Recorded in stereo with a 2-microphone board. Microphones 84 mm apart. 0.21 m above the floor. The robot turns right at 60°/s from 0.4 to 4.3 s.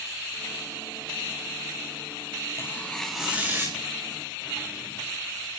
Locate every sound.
2.6 s tearing paper: 145° left, 4.5 m; by 3.8 s 140° right, 4.5 m